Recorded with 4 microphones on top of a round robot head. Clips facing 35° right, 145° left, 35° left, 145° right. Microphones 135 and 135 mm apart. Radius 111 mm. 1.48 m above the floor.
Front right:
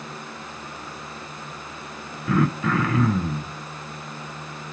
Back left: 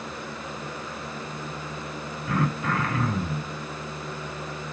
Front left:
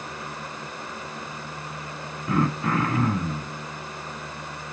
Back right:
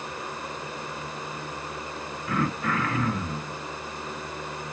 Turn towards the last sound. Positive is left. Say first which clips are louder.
# front right 5 dB, front left 4 dB
turn(degrees=-25)